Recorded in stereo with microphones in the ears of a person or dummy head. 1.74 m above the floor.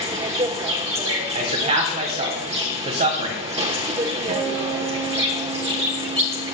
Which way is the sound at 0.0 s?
35° right (ahead or behind).